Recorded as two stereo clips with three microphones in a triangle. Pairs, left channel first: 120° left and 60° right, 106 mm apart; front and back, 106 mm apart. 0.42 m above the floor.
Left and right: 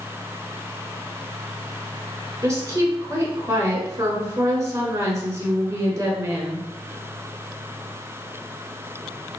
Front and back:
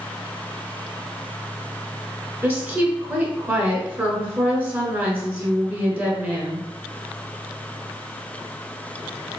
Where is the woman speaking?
115° right, 1.4 m.